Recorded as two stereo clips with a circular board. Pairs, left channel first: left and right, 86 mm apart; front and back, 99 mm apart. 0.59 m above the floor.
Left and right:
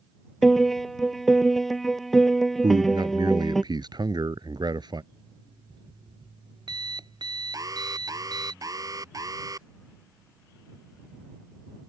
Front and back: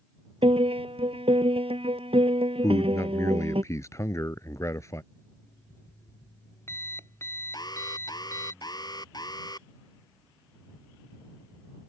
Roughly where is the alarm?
Ahead right.